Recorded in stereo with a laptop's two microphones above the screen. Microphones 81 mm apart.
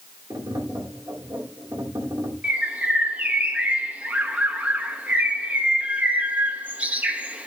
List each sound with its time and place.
0.3 s tapping: 50° right (ahead or behind), 2 m
2.4 s a bird: 20° right (ahead or behind), 0.6 m